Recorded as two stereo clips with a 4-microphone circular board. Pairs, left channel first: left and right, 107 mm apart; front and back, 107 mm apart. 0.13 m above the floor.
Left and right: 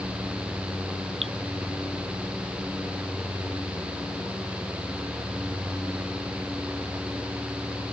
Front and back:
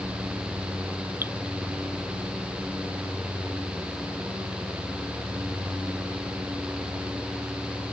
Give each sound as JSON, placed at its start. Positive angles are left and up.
{"t": 1.2, "sound": "dripping", "azimuth_deg": -110}